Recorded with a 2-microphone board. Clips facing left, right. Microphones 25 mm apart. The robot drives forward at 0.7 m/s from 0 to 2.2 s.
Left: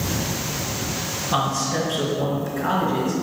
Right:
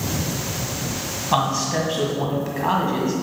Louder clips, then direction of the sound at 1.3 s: Right 2 dB; 35° right (ahead or behind).